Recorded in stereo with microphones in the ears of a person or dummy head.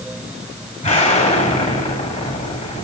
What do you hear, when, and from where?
0.8 s an explosion: 30° left (ahead or behind), 7.5 m